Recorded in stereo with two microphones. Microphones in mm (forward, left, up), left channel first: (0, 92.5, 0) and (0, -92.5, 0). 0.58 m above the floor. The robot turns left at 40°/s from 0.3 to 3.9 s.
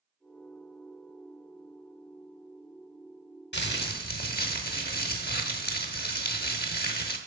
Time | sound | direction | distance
3.5 | crumpling | 70° left (ahead or behind) | 0.8 m